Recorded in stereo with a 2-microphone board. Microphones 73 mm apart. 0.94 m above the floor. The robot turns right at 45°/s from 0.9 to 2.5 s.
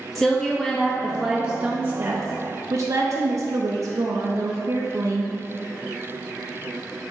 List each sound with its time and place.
0.1 s a woman speaking: straight behind, 0.8 m; by 5.3 s 110° right, 0.8 m